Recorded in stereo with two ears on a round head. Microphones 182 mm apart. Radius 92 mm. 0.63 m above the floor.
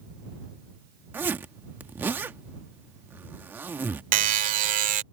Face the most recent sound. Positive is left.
turn(degrees=-40)  # may be behind; listen again after turning